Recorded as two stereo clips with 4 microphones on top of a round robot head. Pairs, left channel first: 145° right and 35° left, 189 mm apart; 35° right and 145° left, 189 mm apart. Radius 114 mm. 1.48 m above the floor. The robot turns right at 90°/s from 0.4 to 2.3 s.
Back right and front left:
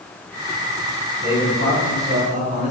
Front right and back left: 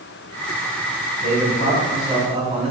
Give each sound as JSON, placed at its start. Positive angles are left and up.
{"t": 1.2, "sound": "a man speaking", "azimuth_deg": -15, "distance_m": 5.0}